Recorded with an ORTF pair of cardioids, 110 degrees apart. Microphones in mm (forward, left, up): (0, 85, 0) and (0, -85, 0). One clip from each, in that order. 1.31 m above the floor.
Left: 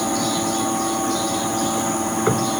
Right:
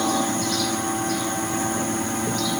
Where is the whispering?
I don't hear whispering.